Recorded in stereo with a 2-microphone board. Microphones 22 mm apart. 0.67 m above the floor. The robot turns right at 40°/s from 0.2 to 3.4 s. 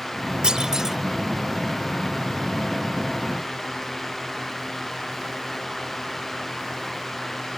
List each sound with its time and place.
0.4 s a clunk: 40° right (ahead or behind); by 1.0 s 20° right (ahead or behind)